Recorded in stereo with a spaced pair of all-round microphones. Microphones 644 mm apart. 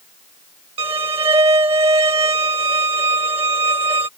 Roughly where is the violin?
Right.